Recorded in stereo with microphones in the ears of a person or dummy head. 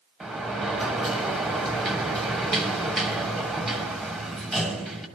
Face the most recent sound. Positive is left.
turn(degrees=0)  # may be behind; listen again after turning